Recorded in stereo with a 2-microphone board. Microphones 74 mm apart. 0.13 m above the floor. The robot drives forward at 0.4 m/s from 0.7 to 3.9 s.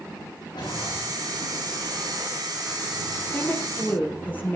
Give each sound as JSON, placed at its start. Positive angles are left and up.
{"t": 0.5, "sound": "a whoosh", "side_deg": 85, "distance_m": 7.0}
{"t": 3.3, "sound": "a woman speaking", "side_deg": 25, "distance_m": 3.5}